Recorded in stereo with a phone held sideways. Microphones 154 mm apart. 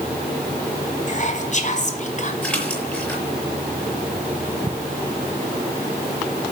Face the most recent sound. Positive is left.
turn(degrees=5)  # may be behind; listen again after turning